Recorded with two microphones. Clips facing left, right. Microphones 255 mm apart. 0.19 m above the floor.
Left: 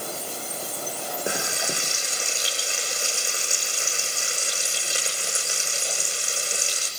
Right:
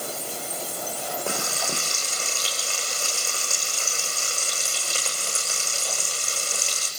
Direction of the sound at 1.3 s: 15° left (ahead or behind).